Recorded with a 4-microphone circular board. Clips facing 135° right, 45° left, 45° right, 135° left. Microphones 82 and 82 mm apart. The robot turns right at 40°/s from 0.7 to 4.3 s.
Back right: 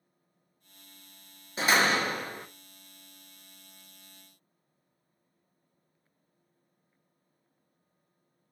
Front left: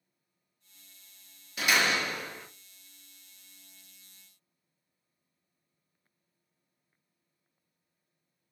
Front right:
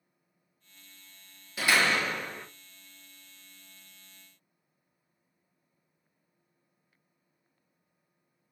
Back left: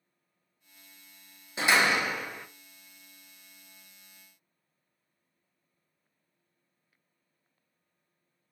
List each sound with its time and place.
1.6 s a door slam: 170° right, 0.6 m; by 2.5 s 135° right, 0.6 m